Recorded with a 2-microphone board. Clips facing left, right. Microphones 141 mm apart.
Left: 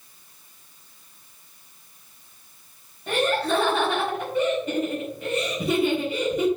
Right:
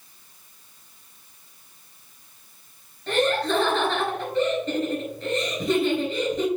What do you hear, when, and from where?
3.1 s laughter: 10° left (ahead or behind), 4 m